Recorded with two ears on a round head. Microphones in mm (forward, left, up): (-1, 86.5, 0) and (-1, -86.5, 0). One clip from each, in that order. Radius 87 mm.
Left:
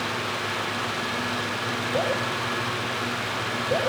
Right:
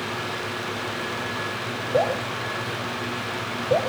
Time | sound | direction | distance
1.9 | dripping | 50° right (ahead or behind) | 10 m